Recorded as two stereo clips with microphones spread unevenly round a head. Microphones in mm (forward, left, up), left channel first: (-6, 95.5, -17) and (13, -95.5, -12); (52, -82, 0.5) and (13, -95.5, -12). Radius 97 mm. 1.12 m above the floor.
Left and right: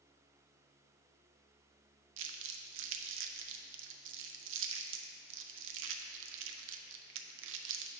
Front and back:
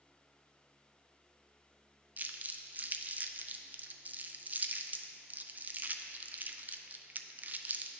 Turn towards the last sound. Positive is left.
turn(degrees=-110)